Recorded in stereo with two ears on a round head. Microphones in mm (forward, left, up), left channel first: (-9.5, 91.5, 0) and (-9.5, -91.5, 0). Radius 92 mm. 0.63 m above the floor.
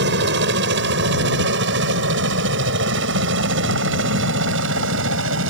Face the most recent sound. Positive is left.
turn(degrees=-65)  # may be behind; listen again after turning